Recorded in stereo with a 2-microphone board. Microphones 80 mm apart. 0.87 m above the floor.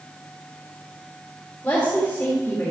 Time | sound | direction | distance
1.6 | a woman speaking | 20° left (ahead or behind) | 2.5 m